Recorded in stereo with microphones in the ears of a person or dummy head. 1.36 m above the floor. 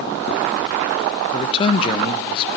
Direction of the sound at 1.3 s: 30° left (ahead or behind).